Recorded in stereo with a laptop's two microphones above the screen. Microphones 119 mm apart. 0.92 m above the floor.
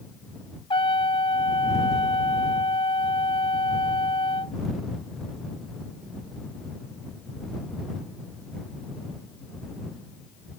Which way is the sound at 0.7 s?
50° left (ahead or behind).